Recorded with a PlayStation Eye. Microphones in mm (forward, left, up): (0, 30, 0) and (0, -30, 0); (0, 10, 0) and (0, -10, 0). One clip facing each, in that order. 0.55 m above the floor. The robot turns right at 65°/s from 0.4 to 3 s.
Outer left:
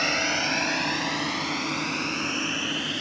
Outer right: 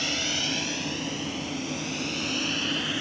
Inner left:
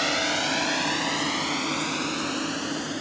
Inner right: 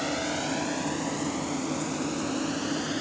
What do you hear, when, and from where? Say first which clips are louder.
0.0 s a drone: outer left 5 dB, inner left 5 dB; 50° left (ahead or behind); by 3.0 s 5° right (ahead or behind)